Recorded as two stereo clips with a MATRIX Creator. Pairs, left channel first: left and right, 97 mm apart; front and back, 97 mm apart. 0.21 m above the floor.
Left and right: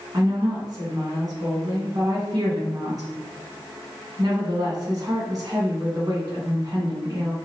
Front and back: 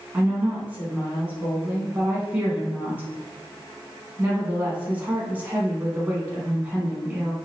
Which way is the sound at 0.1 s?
115° right.